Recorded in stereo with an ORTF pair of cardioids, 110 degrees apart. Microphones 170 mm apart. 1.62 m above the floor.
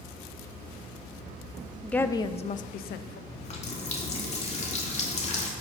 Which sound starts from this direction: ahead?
A woman speaking, at 1.8 s.